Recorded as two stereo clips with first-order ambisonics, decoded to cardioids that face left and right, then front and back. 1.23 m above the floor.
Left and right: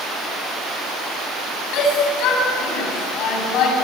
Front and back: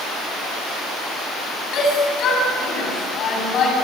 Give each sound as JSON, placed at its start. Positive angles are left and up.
{"t": 1.7, "sound": "a shout", "azimuth_deg": 50, "distance_m": 8.5}